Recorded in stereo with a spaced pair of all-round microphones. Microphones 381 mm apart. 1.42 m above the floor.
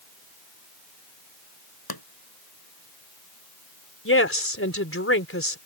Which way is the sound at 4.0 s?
35° left (ahead or behind).